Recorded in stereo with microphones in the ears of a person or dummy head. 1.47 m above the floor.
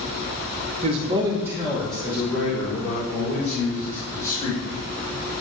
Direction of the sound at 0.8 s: 40° right (ahead or behind).